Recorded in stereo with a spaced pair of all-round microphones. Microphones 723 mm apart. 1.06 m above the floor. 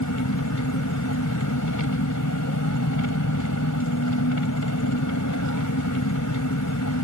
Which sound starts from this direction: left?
An engine running, at 0.0 s.